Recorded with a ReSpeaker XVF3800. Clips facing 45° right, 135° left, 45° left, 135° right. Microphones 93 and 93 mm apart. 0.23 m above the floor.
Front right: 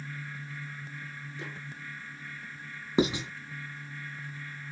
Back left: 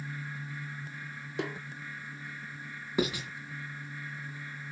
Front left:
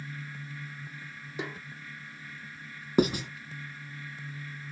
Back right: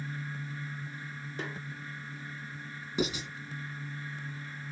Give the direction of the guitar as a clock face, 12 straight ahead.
No guitar in this recording.